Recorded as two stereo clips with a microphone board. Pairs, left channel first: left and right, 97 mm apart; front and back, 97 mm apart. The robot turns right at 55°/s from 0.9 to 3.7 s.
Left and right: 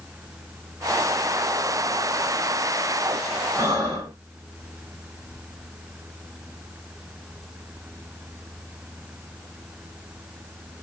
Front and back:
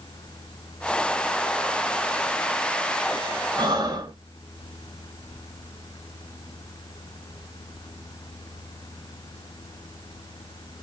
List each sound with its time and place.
3.6 s breathing: 145° right, 0.9 m; by 4.2 s 135° right, 0.9 m